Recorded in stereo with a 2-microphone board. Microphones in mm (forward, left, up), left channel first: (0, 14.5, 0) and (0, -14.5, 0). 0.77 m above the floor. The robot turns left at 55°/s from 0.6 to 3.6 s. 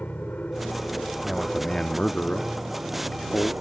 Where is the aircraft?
70° left; by 3.6 s 95° right.